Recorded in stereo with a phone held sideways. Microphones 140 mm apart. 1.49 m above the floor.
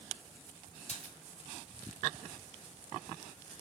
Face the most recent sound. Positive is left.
turn(degrees=55)  # may be behind; listen again after turning